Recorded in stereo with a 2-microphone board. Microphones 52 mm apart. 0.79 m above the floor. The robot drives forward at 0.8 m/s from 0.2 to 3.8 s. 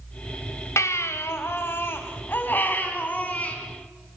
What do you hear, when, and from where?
0.8 s a baby crying: 70° left (ahead or behind), 1.8 m; by 3.5 s 30° left (ahead or behind), 3.5 m